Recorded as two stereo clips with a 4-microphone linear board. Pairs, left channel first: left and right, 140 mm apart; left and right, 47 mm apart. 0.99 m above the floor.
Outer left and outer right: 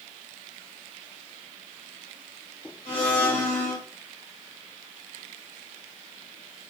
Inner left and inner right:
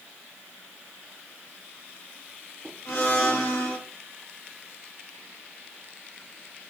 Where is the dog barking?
I don't hear a dog barking.